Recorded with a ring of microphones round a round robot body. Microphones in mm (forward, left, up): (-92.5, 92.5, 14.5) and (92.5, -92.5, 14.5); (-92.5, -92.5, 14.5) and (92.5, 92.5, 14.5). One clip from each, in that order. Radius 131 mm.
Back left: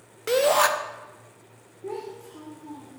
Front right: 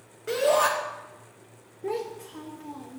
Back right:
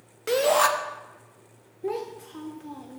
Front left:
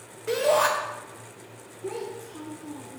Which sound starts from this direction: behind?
A shout, at 0.3 s.